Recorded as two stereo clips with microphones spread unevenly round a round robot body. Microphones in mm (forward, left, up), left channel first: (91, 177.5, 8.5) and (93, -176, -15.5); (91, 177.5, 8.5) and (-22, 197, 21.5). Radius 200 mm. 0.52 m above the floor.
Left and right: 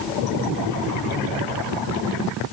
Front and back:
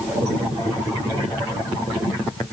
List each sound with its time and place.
Only background noise.